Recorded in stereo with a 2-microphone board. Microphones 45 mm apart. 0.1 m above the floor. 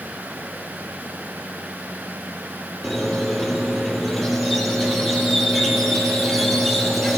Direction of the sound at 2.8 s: Centre (ahead or behind).